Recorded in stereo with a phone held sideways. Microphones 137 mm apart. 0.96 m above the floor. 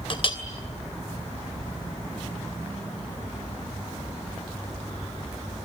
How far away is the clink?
About 2.5 m.